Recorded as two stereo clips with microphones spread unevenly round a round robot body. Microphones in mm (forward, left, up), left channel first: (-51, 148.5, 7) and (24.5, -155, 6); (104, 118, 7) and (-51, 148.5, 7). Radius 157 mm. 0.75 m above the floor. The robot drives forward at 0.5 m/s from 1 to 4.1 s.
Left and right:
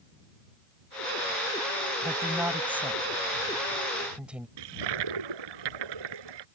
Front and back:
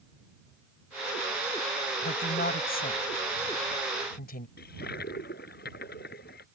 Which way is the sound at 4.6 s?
70° right.